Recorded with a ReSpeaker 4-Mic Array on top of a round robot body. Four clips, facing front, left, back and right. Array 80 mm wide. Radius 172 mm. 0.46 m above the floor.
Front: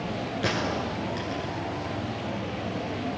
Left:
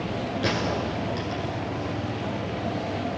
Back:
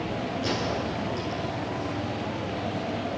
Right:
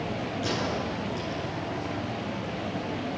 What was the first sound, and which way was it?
A gunshot, 25° left.